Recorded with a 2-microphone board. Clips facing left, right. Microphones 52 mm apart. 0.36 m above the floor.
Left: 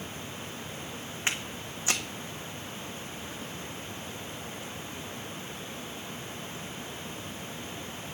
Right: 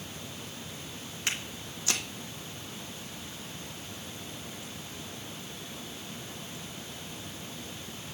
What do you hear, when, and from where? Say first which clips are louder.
1.3 s footsteps: left 2 dB; 25° left (ahead or behind), 1.2 m